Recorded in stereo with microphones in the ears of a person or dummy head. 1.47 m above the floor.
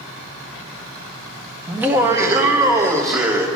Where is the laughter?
10° right (ahead or behind), 0.6 m; by 3.5 s 15° right (ahead or behind), 1.5 m.